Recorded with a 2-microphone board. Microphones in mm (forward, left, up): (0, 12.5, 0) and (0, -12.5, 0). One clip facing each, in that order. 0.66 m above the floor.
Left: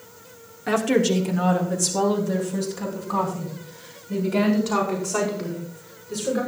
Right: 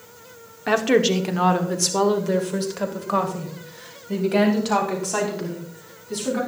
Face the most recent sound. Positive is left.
turn(degrees=-80)